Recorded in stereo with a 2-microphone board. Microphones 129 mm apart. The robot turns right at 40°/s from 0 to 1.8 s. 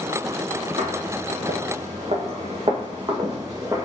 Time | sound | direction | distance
0.8 | footsteps | 50° right (ahead or behind) | 1.6 m